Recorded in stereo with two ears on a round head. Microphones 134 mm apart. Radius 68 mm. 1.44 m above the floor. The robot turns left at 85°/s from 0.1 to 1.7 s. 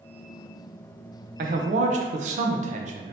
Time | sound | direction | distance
1.4 | a man speaking | 60° right (ahead or behind) | 0.6 m